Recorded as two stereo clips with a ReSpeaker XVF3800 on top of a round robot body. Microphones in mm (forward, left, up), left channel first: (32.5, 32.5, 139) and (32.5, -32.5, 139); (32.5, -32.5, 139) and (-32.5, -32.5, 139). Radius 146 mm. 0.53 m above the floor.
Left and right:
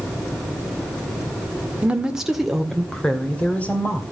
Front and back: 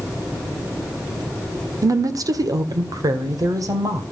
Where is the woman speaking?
165° right, 1.7 m; by 4.0 s 155° left, 2.5 m.